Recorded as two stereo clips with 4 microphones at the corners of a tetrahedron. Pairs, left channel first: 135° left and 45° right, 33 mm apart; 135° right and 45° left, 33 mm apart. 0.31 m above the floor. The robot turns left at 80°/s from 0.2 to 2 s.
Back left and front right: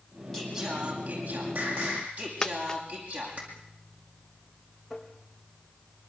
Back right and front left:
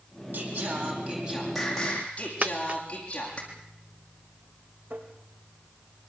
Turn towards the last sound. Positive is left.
turn(degrees=40)